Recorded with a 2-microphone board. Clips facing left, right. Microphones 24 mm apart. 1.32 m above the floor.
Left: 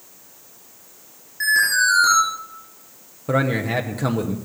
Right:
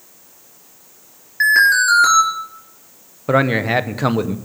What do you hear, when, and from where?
1.4 s an alarm: 40° right (ahead or behind), 4 m
3.3 s a man speaking: 30° right (ahead or behind), 0.6 m